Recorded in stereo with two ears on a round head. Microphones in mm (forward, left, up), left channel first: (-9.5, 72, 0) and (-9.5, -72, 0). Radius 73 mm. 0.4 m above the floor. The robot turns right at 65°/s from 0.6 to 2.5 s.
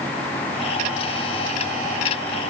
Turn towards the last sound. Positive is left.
No sound to turn to.